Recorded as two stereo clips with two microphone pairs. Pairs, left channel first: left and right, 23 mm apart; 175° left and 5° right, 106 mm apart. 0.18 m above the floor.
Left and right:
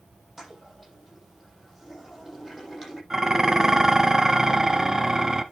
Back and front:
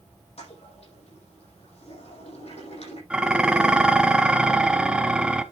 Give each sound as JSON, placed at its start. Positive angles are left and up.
{"t": 0.4, "sound": "a toilet flushing", "azimuth_deg": -175, "distance_m": 7.0}
{"t": 3.1, "sound": "dishes clattering", "azimuth_deg": -60, "distance_m": 0.7}